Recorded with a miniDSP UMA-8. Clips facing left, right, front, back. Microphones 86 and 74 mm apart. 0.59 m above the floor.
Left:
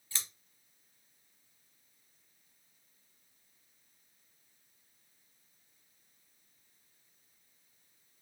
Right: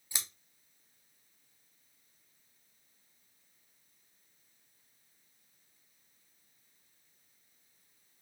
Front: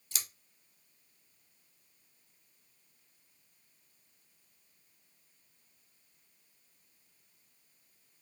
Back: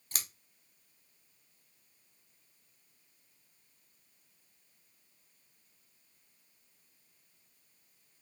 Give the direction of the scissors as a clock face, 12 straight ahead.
5 o'clock.